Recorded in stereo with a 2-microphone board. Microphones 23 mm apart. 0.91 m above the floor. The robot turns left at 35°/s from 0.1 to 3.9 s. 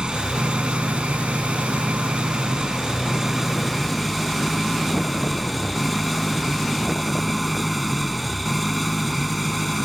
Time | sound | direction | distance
0.0 | an engine running | 50° right | ?